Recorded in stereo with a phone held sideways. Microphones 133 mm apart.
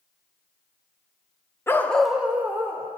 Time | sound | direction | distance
1.7 | a dog barking | 20° left (ahead or behind) | 0.6 m